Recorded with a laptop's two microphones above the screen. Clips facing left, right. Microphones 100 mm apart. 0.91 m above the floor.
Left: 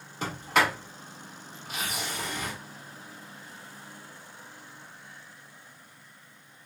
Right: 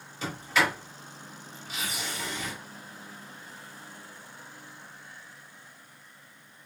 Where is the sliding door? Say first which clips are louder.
Left 2 dB; 45° left (ahead or behind), 2.5 m.